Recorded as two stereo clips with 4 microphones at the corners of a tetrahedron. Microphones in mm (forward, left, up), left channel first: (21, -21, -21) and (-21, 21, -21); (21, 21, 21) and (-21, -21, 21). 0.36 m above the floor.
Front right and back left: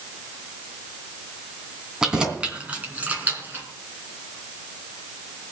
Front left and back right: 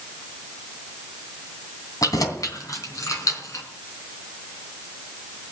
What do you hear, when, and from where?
2.0 s keys jangling: 55° left, 2.5 m; by 3.6 s 75° left, 3.5 m